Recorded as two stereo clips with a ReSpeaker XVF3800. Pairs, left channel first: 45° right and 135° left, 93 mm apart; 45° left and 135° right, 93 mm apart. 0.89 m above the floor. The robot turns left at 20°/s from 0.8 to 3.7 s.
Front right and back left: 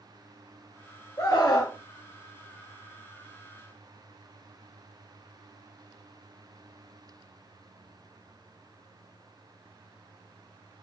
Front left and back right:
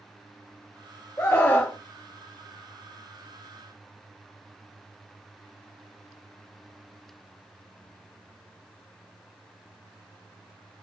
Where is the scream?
10° right, 0.7 m; by 1.8 s 20° right, 0.7 m.